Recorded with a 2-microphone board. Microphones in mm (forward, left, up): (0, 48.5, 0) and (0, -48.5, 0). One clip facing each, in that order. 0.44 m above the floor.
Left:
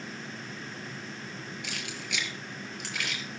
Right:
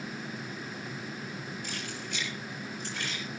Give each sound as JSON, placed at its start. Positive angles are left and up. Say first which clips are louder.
{"t": 1.6, "sound": "keys jangling", "louder": "right 1 dB", "side_deg": 80, "distance_m": 6.0}